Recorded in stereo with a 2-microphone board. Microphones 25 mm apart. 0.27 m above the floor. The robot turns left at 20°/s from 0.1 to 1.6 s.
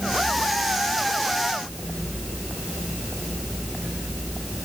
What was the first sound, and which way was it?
Only background noise.